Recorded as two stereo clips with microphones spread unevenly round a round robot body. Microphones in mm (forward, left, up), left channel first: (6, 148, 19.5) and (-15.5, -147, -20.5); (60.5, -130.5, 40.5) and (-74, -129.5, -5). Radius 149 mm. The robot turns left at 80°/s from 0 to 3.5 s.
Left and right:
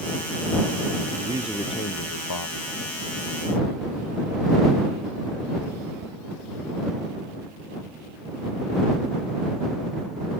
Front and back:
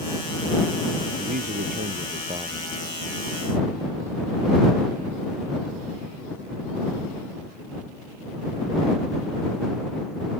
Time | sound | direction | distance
1.2 | a man speaking | 160° right | ?